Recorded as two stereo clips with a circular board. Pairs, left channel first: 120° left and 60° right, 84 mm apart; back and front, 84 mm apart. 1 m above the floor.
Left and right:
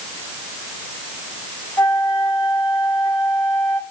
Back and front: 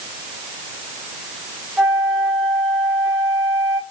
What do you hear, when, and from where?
1.8 s a flute: 90° left, 7 m